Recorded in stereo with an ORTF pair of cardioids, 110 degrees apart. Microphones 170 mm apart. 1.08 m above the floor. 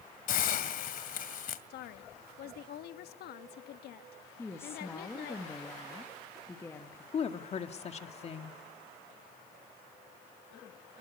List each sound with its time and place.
0.3 s a hiss: 60° left, 2 m
1.7 s a woman speaking: 70° left, 1.4 m
4.4 s a woman speaking: 15° left, 1.9 m
7.1 s a woman speaking: 40° left, 2.0 m